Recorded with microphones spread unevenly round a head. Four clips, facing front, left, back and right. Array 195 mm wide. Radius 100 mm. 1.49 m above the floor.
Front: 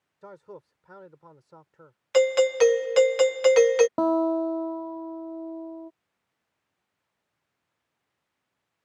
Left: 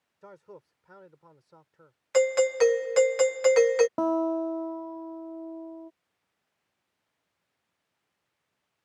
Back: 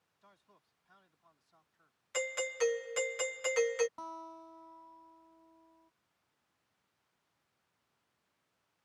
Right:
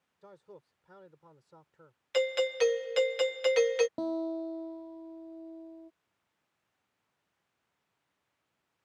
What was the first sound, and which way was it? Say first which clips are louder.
A man speaking: left 4 dB, front 22 dB; 15° left.